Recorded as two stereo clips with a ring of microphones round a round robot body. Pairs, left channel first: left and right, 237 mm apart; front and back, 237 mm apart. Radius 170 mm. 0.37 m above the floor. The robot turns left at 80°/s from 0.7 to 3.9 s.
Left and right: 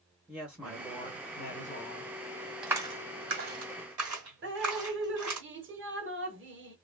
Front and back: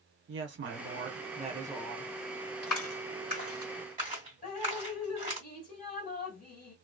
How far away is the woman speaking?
About 1.1 m.